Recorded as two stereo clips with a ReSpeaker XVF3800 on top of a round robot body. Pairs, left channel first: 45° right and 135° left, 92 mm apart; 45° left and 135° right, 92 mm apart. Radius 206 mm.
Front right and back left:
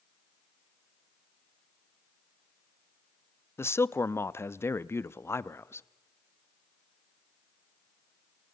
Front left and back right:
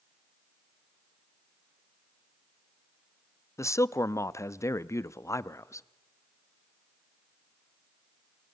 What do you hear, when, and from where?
3.6 s a man speaking: 5° left, 0.9 m